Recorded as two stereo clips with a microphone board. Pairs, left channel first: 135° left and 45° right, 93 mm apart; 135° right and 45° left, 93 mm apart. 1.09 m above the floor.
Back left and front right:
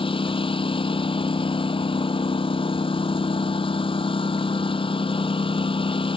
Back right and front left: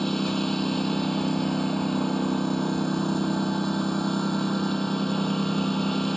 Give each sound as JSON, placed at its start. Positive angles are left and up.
{"t": 0.0, "sound": "a lawn mower", "azimuth_deg": 140}